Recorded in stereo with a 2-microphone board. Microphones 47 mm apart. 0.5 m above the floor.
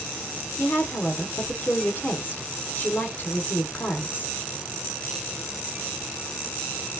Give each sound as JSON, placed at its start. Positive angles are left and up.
{"t": 0.6, "sound": "a woman speaking", "side_deg": 40, "distance_m": 1.4}